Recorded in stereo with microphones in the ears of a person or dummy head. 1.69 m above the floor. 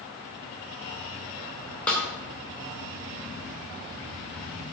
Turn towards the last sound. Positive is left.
turn(degrees=10)  # may be behind; listen again after turning